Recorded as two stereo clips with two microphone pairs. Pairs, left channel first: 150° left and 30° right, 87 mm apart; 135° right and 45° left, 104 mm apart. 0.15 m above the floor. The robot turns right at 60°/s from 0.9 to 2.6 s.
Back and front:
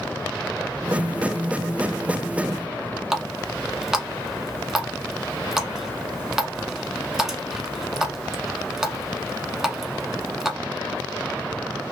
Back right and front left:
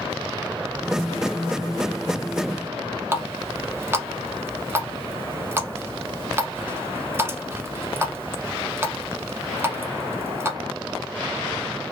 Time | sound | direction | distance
3.1 | a running tap | 45° left | 0.7 m